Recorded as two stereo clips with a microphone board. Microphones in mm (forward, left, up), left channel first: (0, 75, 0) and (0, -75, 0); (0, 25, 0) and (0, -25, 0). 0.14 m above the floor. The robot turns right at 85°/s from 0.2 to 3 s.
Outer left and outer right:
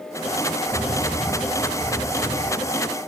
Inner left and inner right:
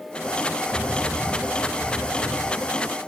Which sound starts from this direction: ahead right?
A bird, at 0.7 s.